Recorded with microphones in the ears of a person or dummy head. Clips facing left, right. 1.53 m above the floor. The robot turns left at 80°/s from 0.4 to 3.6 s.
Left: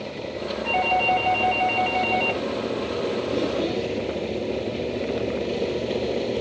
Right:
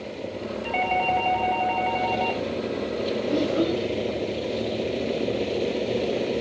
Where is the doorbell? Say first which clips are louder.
Left 2 dB; 165° right, 0.7 m; by 2.4 s 50° left, 0.7 m.